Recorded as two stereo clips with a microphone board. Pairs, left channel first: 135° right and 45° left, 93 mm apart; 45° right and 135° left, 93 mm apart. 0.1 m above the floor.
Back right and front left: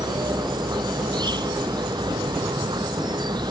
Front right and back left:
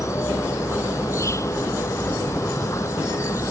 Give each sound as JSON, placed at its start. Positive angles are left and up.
{"t": 0.0, "sound": "an insect", "azimuth_deg": 10}